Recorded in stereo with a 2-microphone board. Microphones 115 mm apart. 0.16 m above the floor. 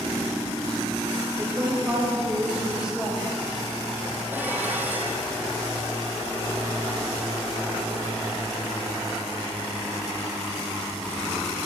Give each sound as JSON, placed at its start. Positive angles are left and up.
{"t": 1.4, "sound": "a woman speaking", "side_deg": -25, "distance_m": 5.0}
{"t": 4.3, "sound": "dishes clattering", "side_deg": -15, "distance_m": 4.0}